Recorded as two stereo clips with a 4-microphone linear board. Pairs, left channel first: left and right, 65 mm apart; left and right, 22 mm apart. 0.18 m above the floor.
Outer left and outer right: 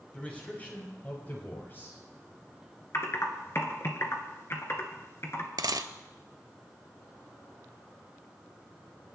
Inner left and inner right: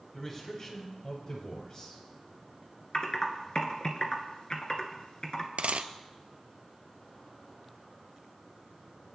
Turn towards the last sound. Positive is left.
turn(degrees=-75)  # may be behind; listen again after turning